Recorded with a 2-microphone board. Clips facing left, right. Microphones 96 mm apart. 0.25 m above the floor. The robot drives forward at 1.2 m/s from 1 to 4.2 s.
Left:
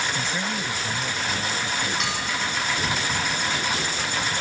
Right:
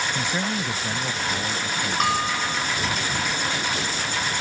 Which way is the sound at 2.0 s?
45° right (ahead or behind).